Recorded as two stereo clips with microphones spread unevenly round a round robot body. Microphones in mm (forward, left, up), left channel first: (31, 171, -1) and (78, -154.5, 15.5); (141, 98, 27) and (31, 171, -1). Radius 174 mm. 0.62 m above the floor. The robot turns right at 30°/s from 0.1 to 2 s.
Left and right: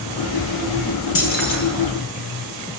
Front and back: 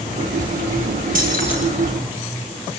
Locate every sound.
1.1 s keys jangling: 150° left, 7 m; by 1.6 s 165° left, 7 m